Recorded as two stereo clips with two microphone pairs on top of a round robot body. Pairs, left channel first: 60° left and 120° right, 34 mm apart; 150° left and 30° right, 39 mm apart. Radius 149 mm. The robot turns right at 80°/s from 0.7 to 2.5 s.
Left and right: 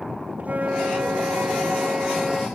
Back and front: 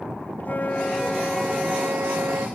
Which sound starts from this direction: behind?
A flute, at 0.4 s.